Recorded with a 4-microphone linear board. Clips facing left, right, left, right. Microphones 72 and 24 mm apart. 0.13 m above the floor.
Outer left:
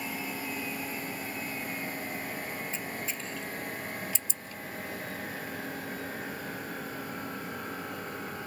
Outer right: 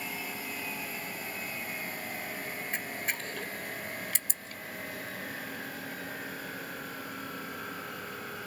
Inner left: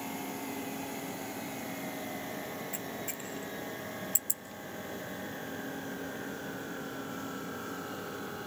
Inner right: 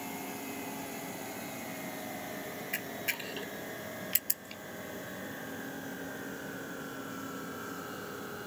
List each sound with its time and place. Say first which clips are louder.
2.7 s a camera shutter: outer right 1 dB, inner right 3 dB; 60° right (ahead or behind), 1.2 m